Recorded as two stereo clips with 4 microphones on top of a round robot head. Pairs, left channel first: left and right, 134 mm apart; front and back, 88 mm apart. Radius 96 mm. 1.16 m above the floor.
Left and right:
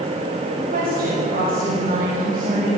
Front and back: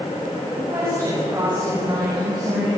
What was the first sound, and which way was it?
A woman speaking, 110° right.